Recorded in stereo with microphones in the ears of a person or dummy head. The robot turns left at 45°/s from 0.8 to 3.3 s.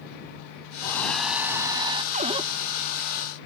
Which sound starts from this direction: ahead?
A hair dryer, at 0.8 s.